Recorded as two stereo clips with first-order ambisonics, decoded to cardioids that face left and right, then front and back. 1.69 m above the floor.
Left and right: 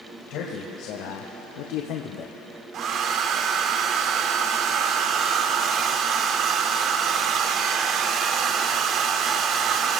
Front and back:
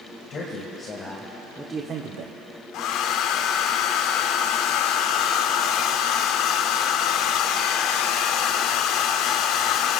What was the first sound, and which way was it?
A man speaking, 55° left.